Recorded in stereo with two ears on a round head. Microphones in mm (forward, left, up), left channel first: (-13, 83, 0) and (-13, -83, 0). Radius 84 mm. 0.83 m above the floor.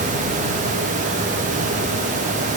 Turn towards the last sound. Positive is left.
No sound to turn to.